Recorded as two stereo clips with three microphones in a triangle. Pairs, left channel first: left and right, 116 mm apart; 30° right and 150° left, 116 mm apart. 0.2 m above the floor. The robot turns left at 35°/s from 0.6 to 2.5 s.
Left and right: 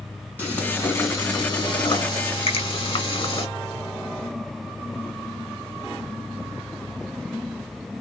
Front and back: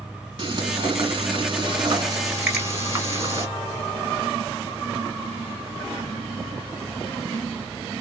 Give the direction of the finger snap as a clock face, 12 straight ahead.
10 o'clock.